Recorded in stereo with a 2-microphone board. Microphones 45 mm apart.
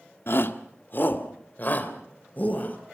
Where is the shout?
55° left (ahead or behind), 1.4 m; by 2.8 s 40° left (ahead or behind), 4 m.